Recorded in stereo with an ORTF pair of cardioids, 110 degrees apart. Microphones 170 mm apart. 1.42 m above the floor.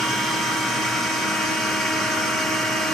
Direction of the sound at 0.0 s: Straight ahead.